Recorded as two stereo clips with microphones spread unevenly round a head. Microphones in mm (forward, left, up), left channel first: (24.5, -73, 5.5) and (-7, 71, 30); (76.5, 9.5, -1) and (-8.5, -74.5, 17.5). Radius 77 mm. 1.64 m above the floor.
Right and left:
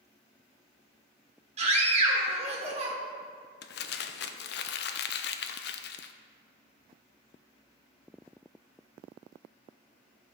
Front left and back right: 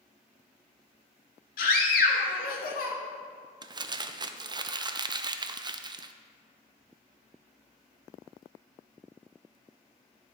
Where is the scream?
55° left, 1.9 m.